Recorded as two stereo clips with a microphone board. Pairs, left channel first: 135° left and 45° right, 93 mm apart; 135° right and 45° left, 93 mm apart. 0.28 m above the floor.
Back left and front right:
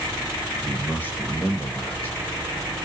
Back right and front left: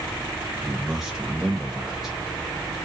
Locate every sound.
0.6 s a man speaking: 125° left, 0.9 m